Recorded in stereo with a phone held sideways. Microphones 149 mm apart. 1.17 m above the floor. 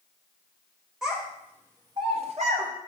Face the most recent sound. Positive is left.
turn(degrees=-50)  # may be behind; listen again after turning